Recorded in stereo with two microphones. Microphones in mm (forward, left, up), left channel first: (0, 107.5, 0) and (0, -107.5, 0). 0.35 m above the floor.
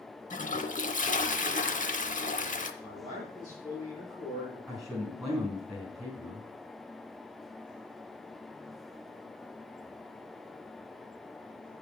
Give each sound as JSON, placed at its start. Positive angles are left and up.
{"t": 0.3, "sound": "a toilet flushing", "side_deg": 40, "distance_m": 0.7}
{"t": 2.8, "sound": "a man speaking", "side_deg": 15, "distance_m": 4.5}
{"t": 4.7, "sound": "a man speaking", "side_deg": 0, "distance_m": 3.5}